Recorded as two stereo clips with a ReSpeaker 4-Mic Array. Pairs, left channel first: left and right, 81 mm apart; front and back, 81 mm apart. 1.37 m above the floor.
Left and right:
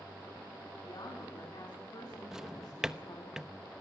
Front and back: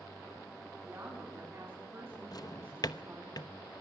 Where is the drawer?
10° right, 0.9 m.